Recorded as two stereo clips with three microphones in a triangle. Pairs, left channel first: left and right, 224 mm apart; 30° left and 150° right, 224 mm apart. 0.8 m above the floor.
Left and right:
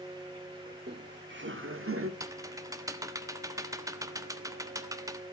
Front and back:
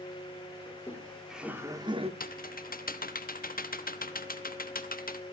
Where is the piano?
No piano in this recording.